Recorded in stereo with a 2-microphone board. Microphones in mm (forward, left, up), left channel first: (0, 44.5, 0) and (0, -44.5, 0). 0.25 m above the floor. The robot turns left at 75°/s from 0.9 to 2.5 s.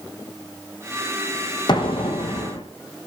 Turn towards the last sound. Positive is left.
turn(degrees=65)